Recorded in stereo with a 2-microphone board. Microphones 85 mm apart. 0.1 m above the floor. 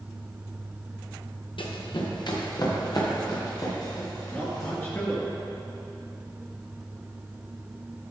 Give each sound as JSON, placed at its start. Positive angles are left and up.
{"t": 1.6, "sound": "running footsteps", "side_deg": 70, "distance_m": 1.9}
{"t": 4.3, "sound": "a man speaking", "side_deg": 25, "distance_m": 1.7}